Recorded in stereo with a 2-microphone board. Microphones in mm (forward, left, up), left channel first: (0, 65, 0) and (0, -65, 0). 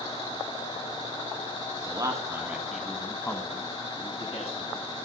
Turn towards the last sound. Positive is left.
turn(degrees=55)  # may be behind; listen again after turning